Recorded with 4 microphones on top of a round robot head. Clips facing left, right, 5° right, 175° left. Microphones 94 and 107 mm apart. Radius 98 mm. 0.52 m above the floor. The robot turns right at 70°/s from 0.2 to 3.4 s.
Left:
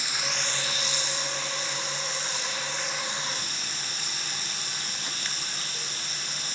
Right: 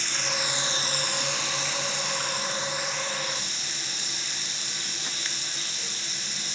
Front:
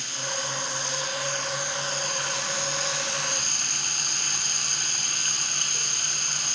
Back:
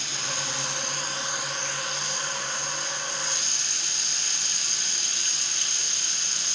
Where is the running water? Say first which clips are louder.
Right 2 dB, front 2 dB; 170° left, 4 m; by 6.5 s 35° left, 4 m.